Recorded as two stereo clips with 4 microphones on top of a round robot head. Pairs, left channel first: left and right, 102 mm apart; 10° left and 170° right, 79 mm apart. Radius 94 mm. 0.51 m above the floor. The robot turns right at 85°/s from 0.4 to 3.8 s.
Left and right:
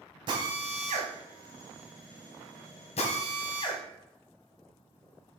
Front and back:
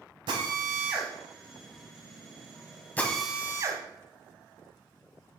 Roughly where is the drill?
Behind right.